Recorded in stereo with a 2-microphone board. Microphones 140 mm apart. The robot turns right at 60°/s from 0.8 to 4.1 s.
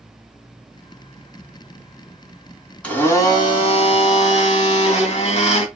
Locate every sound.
2.8 s a blender: 10° left, 2 m; by 5.7 s 85° left, 2 m